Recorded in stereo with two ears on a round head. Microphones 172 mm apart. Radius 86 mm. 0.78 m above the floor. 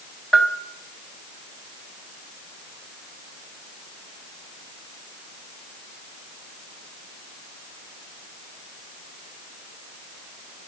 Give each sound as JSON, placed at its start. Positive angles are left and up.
{"t": 0.3, "sound": "a bell", "side_deg": 5, "distance_m": 1.1}